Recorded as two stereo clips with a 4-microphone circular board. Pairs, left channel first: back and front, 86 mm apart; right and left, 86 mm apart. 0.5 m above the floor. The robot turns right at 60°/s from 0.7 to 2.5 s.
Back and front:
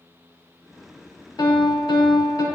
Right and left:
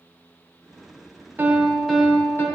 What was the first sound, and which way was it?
A piano, 155° left.